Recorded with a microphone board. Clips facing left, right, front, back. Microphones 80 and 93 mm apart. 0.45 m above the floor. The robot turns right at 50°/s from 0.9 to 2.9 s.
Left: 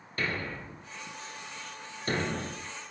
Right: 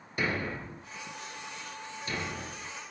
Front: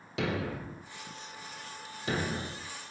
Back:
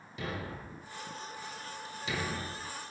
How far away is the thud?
About 2.5 m.